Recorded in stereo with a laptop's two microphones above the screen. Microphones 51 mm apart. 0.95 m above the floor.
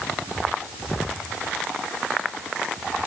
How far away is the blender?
I don't hear a blender.